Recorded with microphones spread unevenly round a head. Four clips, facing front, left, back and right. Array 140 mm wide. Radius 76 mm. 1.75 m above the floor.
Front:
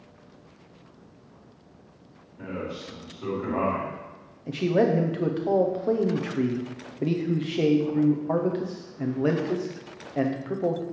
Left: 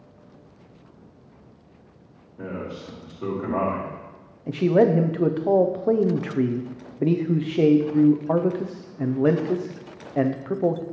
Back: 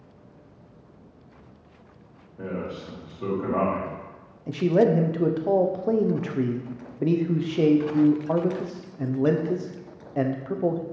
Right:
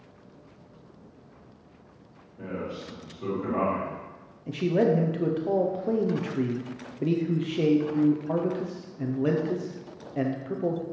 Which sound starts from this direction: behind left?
A man speaking, at 2.4 s.